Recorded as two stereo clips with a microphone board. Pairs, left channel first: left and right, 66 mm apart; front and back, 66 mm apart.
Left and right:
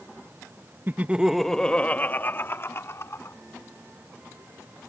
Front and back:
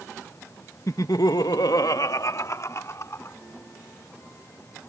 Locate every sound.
0.9 s laughter: 35° right; by 3.4 s 45° left